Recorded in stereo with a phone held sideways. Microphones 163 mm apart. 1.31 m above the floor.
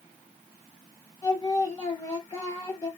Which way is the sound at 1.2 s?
25° left (ahead or behind).